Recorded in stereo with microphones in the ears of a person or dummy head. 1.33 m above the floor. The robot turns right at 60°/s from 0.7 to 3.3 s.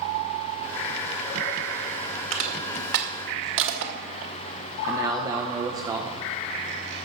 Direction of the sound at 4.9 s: 20° right (ahead or behind).